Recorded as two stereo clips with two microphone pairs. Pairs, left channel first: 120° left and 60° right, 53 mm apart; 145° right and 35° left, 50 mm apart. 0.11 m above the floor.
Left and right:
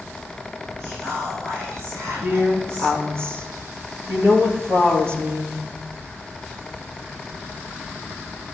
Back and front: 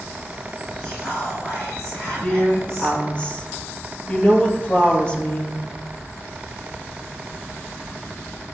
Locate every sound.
0.8 s whispering: 80° right, 4 m
2.2 s a woman speaking: 85° right, 2.5 m